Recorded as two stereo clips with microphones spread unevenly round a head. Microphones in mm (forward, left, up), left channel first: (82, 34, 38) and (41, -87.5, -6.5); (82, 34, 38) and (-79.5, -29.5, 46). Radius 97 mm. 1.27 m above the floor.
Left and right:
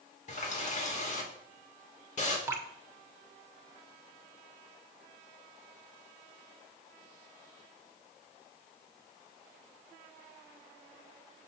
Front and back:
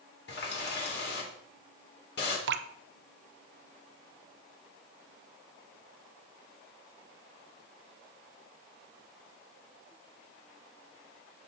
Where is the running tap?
50° left, 3 m.